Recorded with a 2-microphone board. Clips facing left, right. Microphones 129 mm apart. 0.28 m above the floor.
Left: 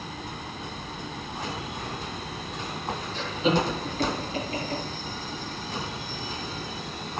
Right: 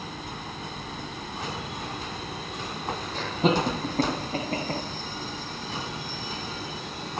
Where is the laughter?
55° right (ahead or behind), 2.0 m; by 4.8 s 60° right (ahead or behind), 2.5 m.